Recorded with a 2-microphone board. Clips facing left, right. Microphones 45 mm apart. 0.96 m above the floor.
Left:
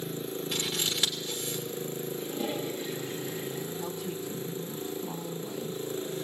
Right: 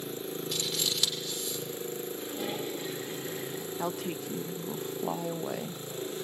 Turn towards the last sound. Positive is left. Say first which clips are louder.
# right 1 dB
turn(degrees=-60)  # may be behind; listen again after turning